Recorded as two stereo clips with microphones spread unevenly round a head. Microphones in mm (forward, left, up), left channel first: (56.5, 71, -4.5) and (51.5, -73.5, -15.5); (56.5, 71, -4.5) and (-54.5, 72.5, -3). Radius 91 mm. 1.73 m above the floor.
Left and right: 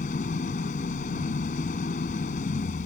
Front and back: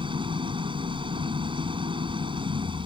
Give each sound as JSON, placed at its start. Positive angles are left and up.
{"t": 0.0, "sound": "an engine running", "azimuth_deg": 135}